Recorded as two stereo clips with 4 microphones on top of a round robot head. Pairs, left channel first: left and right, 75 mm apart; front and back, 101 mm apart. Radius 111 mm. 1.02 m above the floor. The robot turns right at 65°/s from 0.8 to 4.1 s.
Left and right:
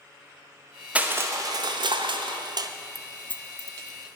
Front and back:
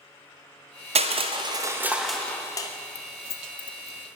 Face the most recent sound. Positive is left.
turn(degrees=75)